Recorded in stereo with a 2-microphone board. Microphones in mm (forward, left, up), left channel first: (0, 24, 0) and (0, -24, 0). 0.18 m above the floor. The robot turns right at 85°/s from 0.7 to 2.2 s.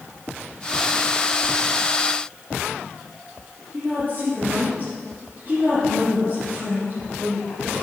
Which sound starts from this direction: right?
A woman speaking, at 3.7 s.